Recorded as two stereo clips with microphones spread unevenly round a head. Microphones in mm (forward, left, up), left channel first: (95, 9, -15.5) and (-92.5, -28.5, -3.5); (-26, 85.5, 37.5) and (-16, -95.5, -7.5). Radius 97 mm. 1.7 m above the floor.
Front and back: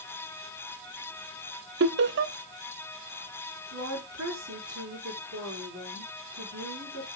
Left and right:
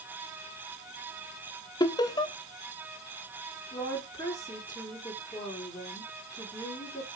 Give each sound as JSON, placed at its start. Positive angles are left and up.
{"t": 1.8, "sound": "laughter", "azimuth_deg": 160, "distance_m": 0.7}
{"t": 3.7, "sound": "a woman speaking", "azimuth_deg": 165, "distance_m": 5.0}